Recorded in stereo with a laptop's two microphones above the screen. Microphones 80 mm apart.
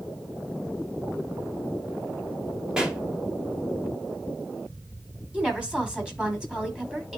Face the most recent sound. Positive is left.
turn(degrees=-10)  # may be behind; listen again after turning